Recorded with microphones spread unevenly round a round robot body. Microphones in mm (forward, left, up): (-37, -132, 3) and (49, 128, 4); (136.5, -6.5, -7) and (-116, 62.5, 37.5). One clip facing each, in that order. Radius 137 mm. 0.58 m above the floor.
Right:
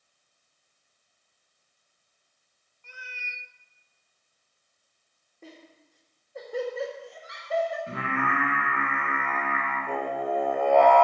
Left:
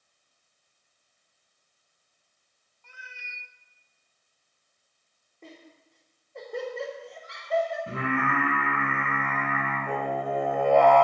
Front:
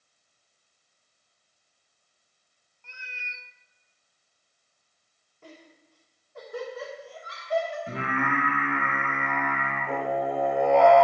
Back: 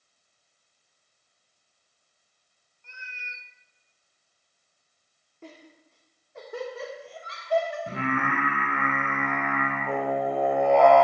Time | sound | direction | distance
2.8 | a cat meowing | 50° right | 0.6 m
5.4 | laughter | 165° left | 1.8 m
7.9 | singing | 130° left | 4 m